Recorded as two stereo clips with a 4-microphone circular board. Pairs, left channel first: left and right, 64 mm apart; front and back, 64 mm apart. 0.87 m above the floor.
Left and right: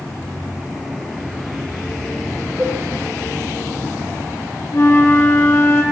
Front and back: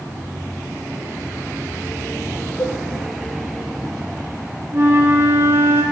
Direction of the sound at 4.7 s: 135° left.